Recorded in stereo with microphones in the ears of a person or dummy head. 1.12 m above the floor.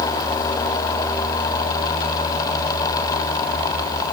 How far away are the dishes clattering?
I don't hear dishes clattering.